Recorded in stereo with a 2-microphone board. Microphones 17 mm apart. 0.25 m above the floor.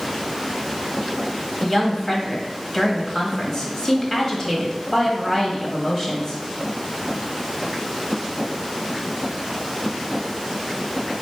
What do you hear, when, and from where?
1.6 s a woman speaking: 30° left (ahead or behind), 1.2 m